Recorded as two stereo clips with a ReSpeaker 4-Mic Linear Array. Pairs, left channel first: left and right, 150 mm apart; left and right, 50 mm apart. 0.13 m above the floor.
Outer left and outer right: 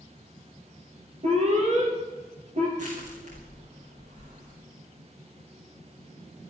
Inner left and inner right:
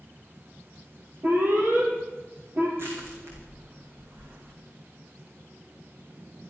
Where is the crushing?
55° right (ahead or behind), 6 m.